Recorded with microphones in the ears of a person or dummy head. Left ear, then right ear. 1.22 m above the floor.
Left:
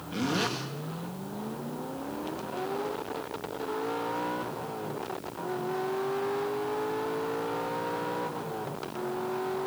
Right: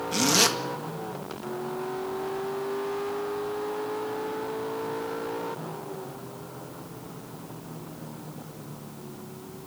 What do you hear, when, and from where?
0.1 s a zipper: 75° right (ahead or behind), 2.0 m